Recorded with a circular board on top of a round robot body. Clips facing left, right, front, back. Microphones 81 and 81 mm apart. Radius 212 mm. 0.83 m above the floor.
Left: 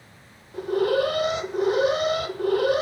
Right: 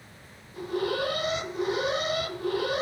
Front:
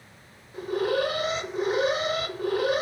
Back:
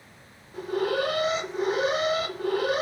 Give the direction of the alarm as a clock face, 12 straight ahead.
9 o'clock.